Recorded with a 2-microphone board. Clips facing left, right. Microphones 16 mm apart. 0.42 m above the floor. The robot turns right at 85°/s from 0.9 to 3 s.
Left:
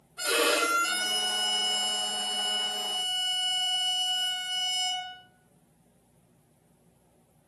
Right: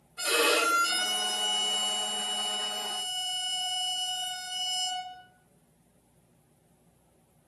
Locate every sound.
0.2 s a violin: 20° right (ahead or behind), 1.3 m; by 5.2 s 20° left (ahead or behind), 1.3 m